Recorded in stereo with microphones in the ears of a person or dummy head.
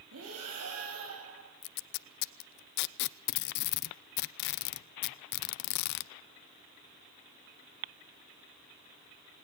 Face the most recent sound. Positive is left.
turn(degrees=60)  # may be behind; listen again after turning